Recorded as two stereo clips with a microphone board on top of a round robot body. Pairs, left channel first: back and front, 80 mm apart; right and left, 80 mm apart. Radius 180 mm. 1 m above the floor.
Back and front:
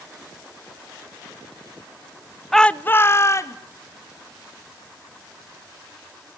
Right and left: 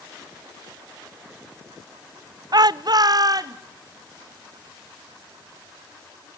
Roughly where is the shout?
Left.